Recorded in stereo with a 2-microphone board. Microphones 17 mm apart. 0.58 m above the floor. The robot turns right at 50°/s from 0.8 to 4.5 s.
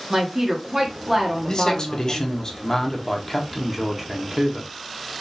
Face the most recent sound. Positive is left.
turn(degrees=-130)